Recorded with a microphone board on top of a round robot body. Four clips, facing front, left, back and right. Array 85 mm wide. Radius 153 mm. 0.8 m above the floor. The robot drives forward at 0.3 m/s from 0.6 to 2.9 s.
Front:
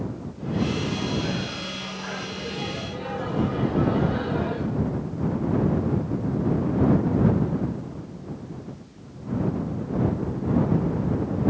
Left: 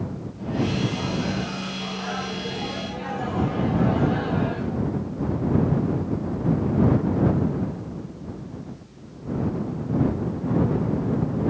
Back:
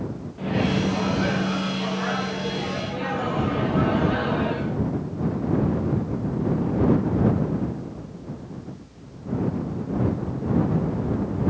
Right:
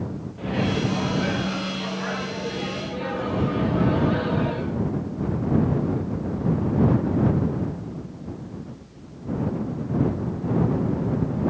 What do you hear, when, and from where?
0.4 s a microwave: 140° right, 0.6 m; by 4.8 s 165° right, 1.2 m